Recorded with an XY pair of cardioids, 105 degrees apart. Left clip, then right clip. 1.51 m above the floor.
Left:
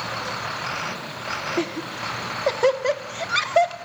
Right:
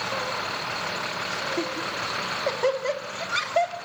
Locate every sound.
1.6 s laughter: 30° left, 2.5 m